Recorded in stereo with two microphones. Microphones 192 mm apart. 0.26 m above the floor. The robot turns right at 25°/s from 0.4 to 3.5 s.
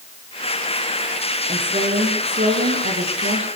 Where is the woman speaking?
140° right, 9.5 m; by 3.5 s 90° right, 9.5 m.